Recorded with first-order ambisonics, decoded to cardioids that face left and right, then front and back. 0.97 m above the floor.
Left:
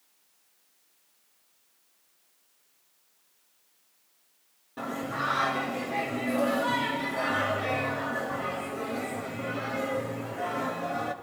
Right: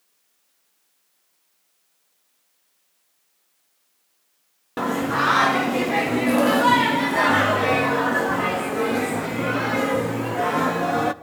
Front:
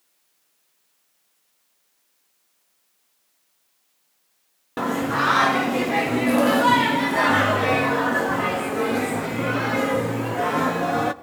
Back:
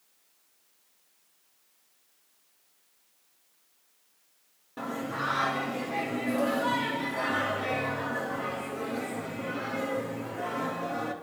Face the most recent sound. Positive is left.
turn(degrees=-45)